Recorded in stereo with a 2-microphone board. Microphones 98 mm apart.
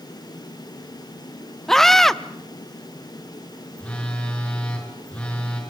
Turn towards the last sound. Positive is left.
turn(degrees=10)  # may be behind; listen again after turning